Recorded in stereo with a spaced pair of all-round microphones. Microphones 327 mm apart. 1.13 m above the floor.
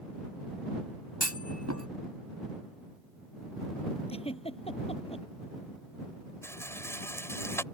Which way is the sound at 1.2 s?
55° right (ahead or behind).